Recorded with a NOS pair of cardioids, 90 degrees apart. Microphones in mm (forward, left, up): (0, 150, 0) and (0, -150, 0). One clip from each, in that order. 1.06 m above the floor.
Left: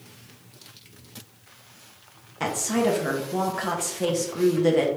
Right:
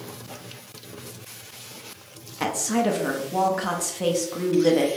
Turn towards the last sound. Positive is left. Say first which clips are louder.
# even
turn(degrees=-5)